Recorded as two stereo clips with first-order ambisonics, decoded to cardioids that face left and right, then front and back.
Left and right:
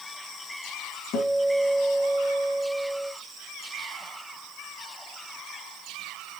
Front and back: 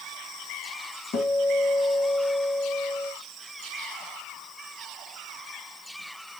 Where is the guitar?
50° left, 3 m.